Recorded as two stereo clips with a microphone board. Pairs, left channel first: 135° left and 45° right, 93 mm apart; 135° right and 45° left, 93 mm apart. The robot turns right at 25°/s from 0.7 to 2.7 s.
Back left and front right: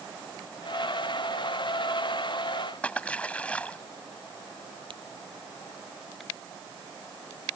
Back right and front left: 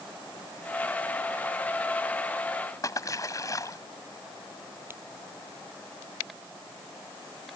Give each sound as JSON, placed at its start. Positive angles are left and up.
{"t": 2.8, "sound": "a splash", "azimuth_deg": -155}
{"t": 4.9, "sound": "a crack", "azimuth_deg": -20}